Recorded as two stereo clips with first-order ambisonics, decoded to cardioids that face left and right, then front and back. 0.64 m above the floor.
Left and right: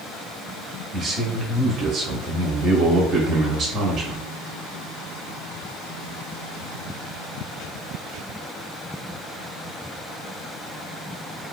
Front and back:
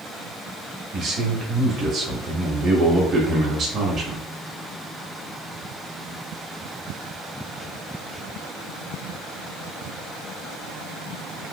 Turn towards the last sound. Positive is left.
turn(degrees=-130)